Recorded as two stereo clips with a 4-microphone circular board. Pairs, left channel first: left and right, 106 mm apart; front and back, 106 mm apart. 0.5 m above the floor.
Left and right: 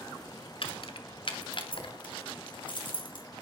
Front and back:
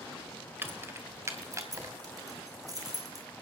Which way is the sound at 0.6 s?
110° left.